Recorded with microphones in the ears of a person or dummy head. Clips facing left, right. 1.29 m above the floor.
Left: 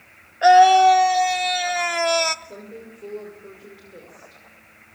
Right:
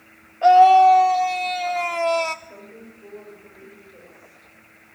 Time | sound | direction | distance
0.4 | a scream | 20° left (ahead or behind) | 1.5 m
2.5 | a woman speaking | 60° left (ahead or behind) | 6 m